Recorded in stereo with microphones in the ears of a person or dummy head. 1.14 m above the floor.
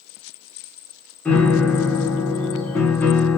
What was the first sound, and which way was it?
A piano, 5° left (ahead or behind).